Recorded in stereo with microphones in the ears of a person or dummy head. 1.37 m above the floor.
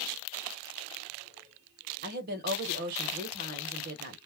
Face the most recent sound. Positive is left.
turn(degrees=-50)  # may be behind; listen again after turning